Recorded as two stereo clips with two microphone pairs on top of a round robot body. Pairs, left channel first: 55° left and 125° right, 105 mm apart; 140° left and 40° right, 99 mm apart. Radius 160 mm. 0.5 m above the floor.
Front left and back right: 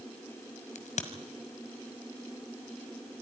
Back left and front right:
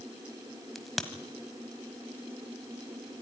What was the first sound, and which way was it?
A crack, 50° left.